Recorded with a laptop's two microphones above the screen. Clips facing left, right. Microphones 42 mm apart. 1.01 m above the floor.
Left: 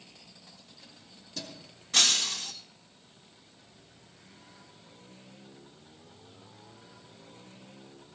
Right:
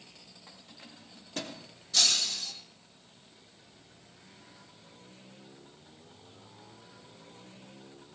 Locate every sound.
0.5 s keys jangling: 25° right (ahead or behind), 2.0 m; by 1.7 s 55° right (ahead or behind), 1.7 m
1.9 s breaking glass: 60° left (ahead or behind), 3 m